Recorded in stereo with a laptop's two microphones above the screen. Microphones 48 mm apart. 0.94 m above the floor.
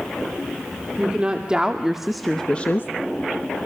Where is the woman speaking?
25° right (ahead or behind), 2.5 m; by 2.9 s 50° left (ahead or behind), 0.9 m.